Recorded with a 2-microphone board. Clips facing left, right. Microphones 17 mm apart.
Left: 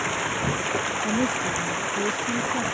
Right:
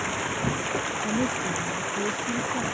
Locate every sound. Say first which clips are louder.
0.0 s running water: left 2 dB; 10° left (ahead or behind)
1.0 s a woman speaking: left 2 dB; 15° left (ahead or behind)